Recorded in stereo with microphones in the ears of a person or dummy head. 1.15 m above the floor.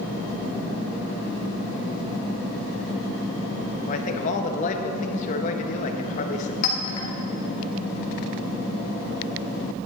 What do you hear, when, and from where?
3.9 s a man speaking: 40° left (ahead or behind), 1.2 m
6.6 s a clink: 45° left (ahead or behind), 2 m